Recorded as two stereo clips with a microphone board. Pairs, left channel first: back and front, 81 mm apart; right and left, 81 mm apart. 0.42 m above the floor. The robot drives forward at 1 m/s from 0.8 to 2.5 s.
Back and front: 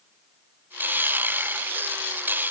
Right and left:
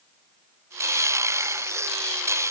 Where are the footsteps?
No footsteps in this recording.